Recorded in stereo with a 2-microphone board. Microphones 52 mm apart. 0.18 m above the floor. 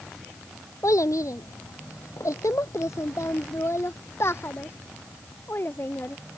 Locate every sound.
0.8 s a child speaking: 80° left; by 6.2 s 40° left (ahead or behind)